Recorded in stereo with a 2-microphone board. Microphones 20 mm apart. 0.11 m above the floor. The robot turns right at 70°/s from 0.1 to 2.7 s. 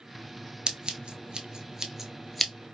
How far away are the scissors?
About 0.6 m.